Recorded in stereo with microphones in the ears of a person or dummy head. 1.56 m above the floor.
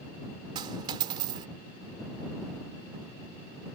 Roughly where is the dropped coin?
Right.